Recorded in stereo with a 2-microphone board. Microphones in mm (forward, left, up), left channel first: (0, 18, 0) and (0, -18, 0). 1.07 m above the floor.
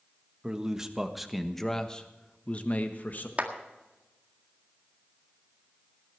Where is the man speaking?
25° right (ahead or behind), 1.4 m; by 3.3 s 55° left (ahead or behind), 1.4 m.